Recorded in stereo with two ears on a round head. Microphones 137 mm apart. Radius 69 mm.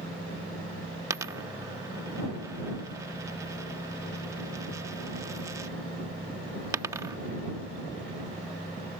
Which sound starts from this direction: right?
A dropped coin, at 1.1 s.